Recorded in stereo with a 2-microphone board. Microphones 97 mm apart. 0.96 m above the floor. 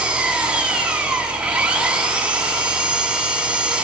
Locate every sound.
0.0 s an engine running: 10° right (ahead or behind), 8 m